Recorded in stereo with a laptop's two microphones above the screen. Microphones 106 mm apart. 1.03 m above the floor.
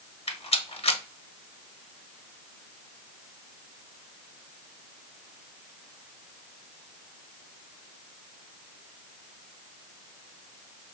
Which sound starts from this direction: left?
A rattle, at 0.3 s.